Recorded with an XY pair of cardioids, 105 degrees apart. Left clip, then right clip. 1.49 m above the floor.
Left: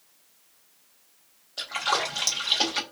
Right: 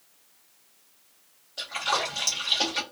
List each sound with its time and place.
1.6 s a splash: 25° left, 1.4 m